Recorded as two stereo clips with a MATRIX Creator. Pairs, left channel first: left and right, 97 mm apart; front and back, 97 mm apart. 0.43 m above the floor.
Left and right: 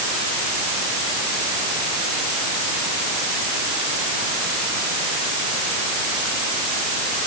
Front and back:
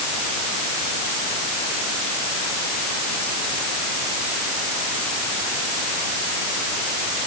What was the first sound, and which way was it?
Only background noise.